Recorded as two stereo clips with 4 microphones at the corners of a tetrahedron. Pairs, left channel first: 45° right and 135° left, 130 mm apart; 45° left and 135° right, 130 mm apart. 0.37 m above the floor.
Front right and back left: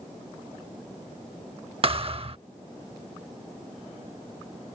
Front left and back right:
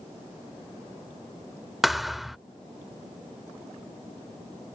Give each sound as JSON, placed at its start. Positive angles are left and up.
{"t": 1.8, "sound": "a thud", "azimuth_deg": 135}